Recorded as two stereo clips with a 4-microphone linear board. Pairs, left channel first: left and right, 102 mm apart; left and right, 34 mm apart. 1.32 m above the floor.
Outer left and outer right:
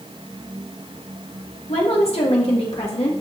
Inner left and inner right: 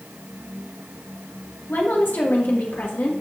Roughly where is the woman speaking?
Left.